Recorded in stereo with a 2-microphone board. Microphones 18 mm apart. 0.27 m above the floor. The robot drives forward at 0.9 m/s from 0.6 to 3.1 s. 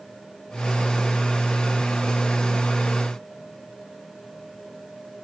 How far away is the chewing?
I don't hear chewing.